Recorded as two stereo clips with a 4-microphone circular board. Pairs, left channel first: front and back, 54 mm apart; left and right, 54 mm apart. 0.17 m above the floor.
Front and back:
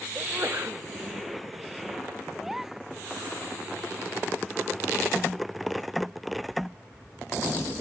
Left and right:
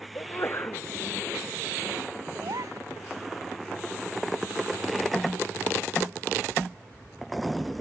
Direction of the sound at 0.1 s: 130° left.